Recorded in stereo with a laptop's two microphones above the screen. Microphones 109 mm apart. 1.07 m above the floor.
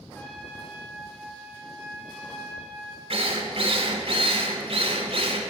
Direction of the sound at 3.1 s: 60° right (ahead or behind).